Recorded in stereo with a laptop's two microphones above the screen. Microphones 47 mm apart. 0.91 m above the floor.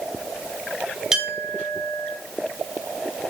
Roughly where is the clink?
Centre.